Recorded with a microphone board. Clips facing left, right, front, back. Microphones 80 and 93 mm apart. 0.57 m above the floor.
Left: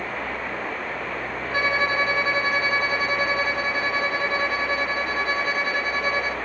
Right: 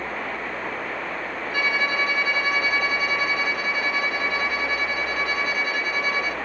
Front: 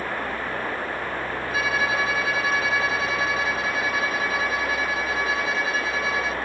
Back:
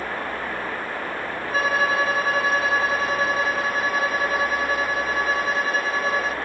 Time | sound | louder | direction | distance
1.5 | a violin | left 2 dB, back 4 dB | 140° left | 1.6 m